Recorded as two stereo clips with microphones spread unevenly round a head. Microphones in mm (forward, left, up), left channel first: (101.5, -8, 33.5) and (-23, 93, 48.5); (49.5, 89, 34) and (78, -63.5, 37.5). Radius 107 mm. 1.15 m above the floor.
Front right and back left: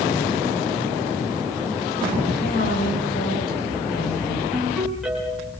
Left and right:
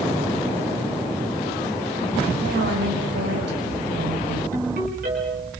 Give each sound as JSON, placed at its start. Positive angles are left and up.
{"t": 2.4, "sound": "a woman speaking", "azimuth_deg": -85, "distance_m": 6.0}
{"t": 4.5, "sound": "a ringtone", "azimuth_deg": -130, "distance_m": 7.0}